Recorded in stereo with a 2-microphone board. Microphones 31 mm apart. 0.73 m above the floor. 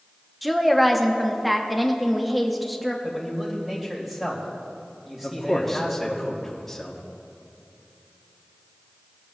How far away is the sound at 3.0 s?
About 3 m.